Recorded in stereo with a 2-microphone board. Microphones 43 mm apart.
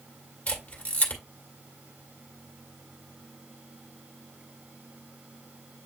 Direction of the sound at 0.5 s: 35° left (ahead or behind).